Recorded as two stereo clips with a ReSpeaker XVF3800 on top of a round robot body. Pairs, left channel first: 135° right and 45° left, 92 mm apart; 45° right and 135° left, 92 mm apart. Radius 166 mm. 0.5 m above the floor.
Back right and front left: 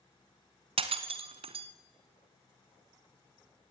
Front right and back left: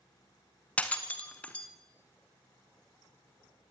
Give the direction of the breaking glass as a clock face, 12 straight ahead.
11 o'clock.